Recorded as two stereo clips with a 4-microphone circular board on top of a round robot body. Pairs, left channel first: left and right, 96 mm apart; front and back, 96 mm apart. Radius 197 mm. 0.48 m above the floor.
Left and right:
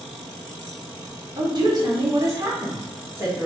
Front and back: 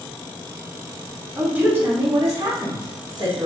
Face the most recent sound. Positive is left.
turn(degrees=-155)